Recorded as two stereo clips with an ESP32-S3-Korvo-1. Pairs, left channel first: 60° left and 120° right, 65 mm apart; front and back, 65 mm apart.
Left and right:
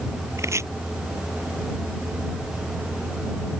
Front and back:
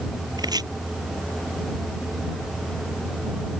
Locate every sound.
0.4 s chopping: 165° right